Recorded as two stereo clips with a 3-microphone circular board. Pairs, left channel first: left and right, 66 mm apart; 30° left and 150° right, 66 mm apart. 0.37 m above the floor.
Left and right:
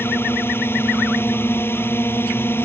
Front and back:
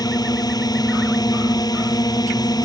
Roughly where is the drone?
Ahead left.